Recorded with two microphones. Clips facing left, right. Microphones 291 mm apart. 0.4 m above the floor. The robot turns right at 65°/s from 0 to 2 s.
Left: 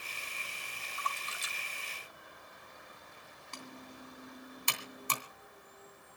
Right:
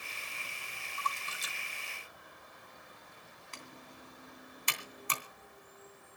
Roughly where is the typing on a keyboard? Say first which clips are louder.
Left 5 dB; left.